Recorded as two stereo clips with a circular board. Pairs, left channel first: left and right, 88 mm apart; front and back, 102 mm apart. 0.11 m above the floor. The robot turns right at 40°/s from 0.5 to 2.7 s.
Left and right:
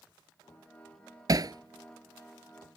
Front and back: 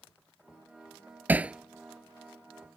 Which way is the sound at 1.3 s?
115° right.